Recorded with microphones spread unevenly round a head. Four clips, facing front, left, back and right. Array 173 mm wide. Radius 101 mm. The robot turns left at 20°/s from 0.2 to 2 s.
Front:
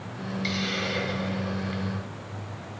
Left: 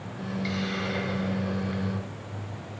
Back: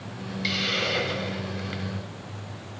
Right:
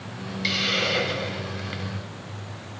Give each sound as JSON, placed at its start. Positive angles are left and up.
{"t": 0.4, "sound": "a hiss", "azimuth_deg": -100, "distance_m": 0.9}